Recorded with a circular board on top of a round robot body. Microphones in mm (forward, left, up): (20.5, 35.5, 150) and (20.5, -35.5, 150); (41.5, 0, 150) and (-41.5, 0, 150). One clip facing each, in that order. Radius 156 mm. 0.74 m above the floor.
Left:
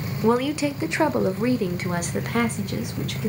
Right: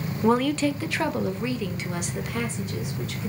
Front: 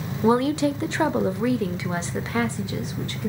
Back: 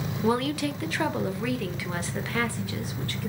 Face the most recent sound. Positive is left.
turn(degrees=70)